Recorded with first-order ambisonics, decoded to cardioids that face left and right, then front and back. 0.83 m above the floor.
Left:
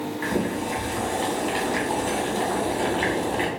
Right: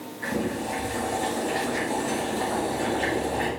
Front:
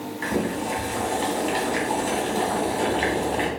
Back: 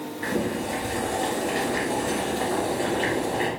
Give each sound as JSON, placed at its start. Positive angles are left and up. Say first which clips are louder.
{"t": 0.2, "sound": "boiling", "louder": "left 1 dB, front 1 dB", "azimuth_deg": 30, "distance_m": 1.7}